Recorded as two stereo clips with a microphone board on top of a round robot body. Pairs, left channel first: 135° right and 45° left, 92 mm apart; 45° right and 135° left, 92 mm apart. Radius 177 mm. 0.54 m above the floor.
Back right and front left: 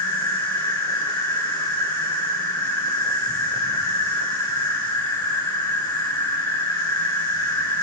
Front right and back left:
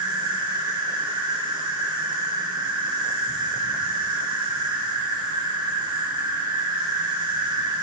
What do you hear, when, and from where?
0.0 s an insect: 175° left, 4 m